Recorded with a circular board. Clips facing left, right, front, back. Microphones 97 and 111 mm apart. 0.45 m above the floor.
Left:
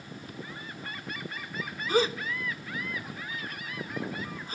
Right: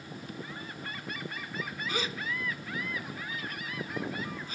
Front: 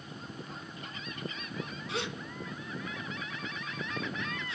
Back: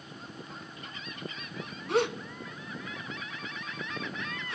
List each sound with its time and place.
1.9 s a gasp: 140° left, 1.0 m